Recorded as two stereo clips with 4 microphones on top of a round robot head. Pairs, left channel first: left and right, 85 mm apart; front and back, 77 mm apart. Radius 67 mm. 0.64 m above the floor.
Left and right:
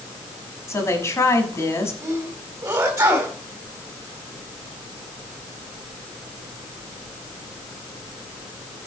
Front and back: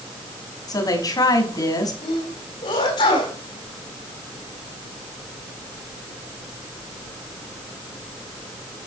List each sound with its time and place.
0.7 s a woman speaking: 35° left, 6 m
2.0 s a sneeze: 25° right, 4 m